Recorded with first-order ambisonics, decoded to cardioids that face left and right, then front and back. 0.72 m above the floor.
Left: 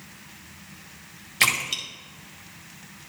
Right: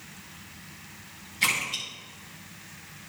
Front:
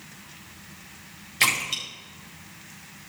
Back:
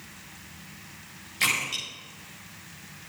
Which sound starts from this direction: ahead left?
A splash, at 1.4 s.